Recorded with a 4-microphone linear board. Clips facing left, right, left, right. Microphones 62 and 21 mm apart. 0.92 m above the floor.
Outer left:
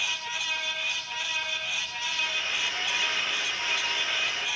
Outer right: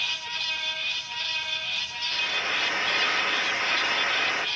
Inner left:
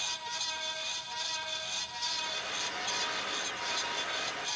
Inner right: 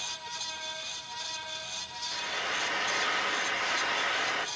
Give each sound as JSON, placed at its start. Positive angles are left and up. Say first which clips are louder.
{"t": 2.1, "sound": "frying", "louder": "outer right 4 dB, inner right 3 dB", "side_deg": -50, "distance_m": 1.1}